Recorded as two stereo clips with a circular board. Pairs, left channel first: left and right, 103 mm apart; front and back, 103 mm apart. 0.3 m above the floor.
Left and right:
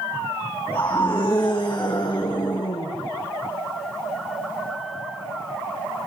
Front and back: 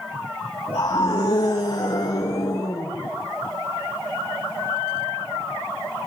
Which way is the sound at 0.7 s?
40° left.